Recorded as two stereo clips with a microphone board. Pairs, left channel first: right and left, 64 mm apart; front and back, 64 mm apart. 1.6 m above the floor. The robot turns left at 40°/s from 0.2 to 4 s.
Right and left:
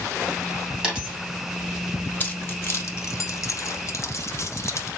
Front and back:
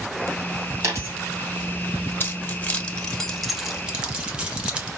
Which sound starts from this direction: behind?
A dropped coin, at 0.8 s.